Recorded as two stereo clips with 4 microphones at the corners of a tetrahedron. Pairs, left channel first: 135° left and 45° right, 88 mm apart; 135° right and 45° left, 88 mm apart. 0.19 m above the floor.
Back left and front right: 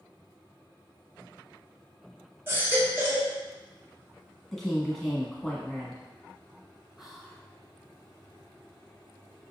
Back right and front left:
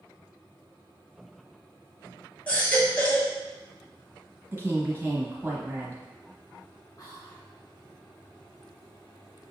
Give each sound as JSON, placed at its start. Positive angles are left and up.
{"t": 2.5, "sound": "a baby crying", "azimuth_deg": -75, "distance_m": 0.9}
{"t": 4.5, "sound": "a woman speaking", "azimuth_deg": 55, "distance_m": 1.1}
{"t": 7.0, "sound": "whispering", "azimuth_deg": -130, "distance_m": 1.6}